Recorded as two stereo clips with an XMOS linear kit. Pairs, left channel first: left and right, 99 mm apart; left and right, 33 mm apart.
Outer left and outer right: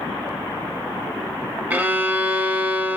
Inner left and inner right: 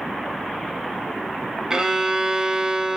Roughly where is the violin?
Centre.